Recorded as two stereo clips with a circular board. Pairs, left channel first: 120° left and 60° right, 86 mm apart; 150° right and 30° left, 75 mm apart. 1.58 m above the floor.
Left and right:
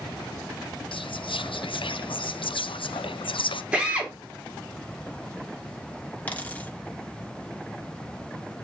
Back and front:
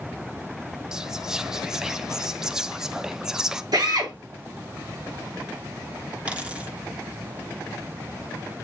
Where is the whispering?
110° left, 0.6 m.